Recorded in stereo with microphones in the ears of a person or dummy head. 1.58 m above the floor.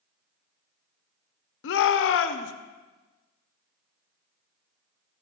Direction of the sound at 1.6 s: 70° left (ahead or behind).